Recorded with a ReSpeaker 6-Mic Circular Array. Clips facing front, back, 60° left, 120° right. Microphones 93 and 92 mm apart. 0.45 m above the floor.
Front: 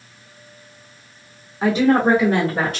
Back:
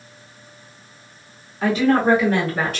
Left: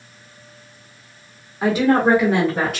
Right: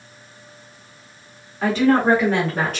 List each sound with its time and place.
1.6 s a woman speaking: 10° left, 1.0 m; by 2.8 s 20° right, 1.5 m